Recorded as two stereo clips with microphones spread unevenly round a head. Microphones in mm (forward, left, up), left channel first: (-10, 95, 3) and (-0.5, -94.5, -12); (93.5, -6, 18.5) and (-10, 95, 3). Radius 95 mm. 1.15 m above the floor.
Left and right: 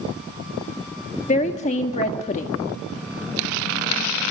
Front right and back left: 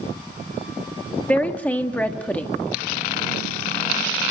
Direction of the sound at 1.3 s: 35° left.